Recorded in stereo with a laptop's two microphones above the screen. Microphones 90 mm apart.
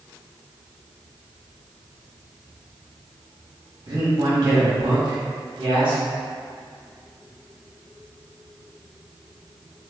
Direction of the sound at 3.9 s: 55° right (ahead or behind).